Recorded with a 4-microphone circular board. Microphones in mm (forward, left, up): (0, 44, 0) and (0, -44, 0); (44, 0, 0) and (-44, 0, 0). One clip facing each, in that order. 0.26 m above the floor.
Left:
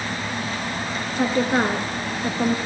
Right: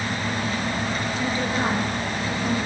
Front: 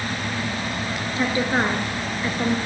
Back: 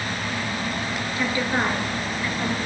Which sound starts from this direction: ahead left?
A woman speaking, at 1.2 s.